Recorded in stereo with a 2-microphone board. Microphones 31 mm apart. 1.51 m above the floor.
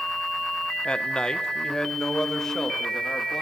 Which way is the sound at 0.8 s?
30° left (ahead or behind).